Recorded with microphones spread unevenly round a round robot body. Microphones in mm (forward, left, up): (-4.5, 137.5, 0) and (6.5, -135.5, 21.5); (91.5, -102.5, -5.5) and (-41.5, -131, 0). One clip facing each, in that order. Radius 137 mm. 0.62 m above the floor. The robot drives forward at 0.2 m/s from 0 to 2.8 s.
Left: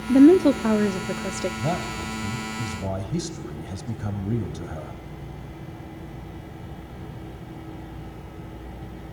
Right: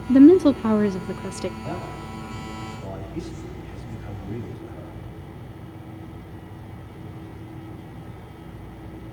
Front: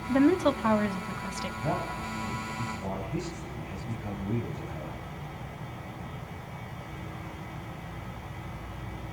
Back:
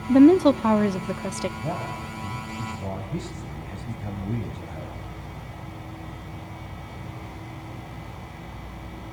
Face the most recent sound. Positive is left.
turn(degrees=115)